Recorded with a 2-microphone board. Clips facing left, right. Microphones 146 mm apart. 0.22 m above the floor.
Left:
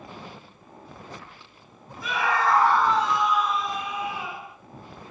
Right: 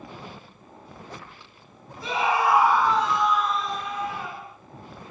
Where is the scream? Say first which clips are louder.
Right 1 dB; 30° right (ahead or behind), 1.0 m; by 4.5 s 10° left (ahead or behind), 4 m.